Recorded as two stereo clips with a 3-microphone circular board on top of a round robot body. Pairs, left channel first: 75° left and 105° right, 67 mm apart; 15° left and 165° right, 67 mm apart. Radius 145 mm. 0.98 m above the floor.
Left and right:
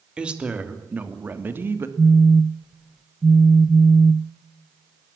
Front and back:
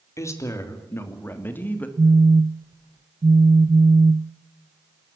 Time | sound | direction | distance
0.2 | a woman speaking | 30° right | 3 m
2.0 | a phone buzzing | 175° left | 0.7 m